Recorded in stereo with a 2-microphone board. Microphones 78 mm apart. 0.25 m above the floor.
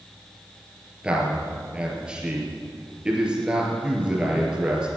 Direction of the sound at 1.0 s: 15° right (ahead or behind).